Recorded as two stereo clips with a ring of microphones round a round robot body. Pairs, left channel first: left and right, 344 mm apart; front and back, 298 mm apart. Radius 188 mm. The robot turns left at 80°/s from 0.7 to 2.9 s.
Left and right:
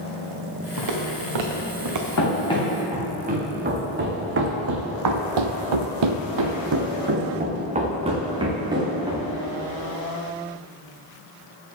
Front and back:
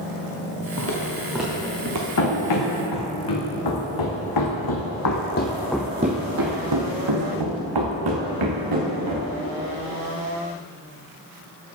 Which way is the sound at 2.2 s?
40° left.